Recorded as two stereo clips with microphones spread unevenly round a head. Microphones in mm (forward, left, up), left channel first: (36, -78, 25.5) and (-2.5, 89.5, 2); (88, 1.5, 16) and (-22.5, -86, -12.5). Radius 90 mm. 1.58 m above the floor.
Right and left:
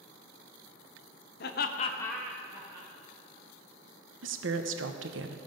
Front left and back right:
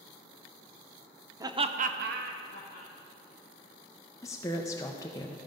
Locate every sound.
1.4 s laughter: 70° right, 0.8 m; by 2.9 s 170° left, 1.6 m
4.2 s a woman speaking: 100° left, 0.7 m